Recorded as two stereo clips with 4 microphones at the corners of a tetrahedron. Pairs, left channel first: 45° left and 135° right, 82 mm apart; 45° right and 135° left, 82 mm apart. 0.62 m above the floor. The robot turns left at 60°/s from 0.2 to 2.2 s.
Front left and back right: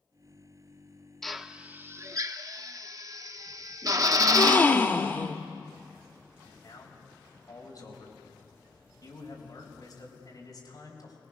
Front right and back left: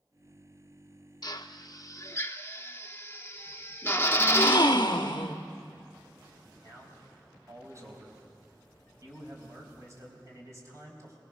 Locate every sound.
1.2 s a drill: 40° right, 0.7 m; by 4.8 s 100° right, 0.7 m
4.2 s a gasp: 20° right, 0.8 m
6.6 s a man speaking: 85° left, 4.5 m